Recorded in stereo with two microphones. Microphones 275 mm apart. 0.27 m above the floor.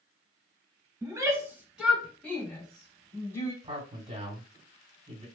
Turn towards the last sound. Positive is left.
turn(degrees=-25)  # may be behind; listen again after turning